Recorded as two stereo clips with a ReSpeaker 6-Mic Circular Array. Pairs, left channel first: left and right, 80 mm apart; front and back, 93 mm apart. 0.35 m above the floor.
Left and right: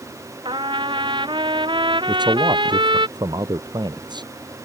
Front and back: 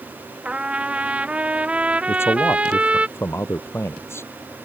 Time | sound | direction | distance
0.5 | a trumpet | 105° right | ?
2.1 | a man speaking | 65° right | ?